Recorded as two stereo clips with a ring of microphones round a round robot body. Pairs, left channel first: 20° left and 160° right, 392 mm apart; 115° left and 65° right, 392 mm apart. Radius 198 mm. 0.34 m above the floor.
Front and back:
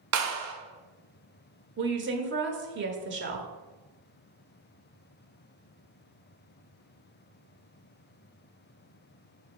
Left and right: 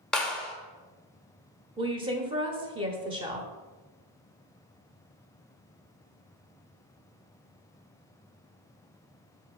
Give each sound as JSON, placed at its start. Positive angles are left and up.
{"t": 0.1, "sound": "a clap", "azimuth_deg": -160, "distance_m": 1.1}
{"t": 1.8, "sound": "a woman speaking", "azimuth_deg": -130, "distance_m": 1.0}